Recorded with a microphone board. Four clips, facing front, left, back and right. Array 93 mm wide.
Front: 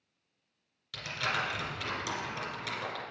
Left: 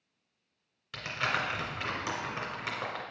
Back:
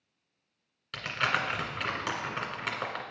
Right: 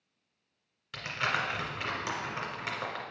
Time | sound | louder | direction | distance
0.9 | crumpling | even, back 4 dB | 170° left | 1.8 m